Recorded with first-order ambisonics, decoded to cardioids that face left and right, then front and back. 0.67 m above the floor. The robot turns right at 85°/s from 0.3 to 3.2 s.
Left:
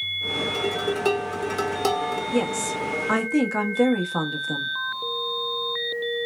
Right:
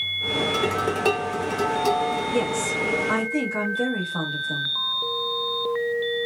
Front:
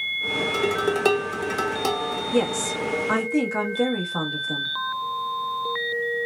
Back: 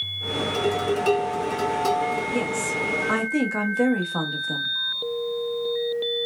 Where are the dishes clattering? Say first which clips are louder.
Right 2 dB, back 2 dB; 50° right, 1.2 m; by 2.2 s 95° left, 1.2 m.